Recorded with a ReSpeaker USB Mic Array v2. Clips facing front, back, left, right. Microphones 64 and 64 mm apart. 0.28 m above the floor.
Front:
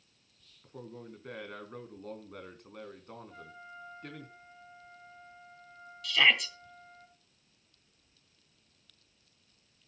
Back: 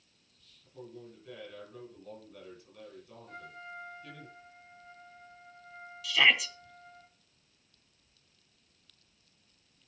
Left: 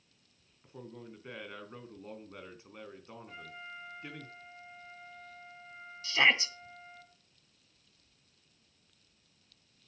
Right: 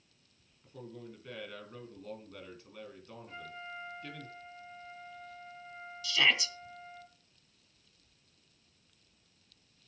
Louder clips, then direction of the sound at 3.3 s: Back 3 dB, right 3 dB; 175° left.